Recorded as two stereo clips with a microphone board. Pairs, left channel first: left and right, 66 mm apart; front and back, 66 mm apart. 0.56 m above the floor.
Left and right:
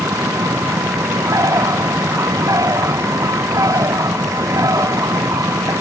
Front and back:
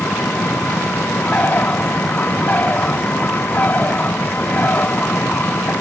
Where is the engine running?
65° right.